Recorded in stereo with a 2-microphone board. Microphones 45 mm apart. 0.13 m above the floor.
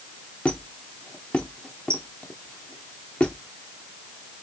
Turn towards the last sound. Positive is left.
turn(degrees=30)  # may be behind; listen again after turning